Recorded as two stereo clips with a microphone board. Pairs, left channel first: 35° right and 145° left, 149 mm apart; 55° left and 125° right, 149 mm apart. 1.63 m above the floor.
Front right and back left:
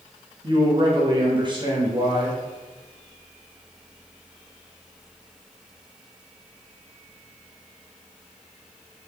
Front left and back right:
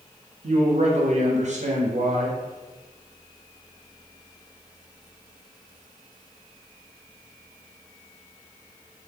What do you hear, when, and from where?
0.4 s a man speaking: 160° right, 0.6 m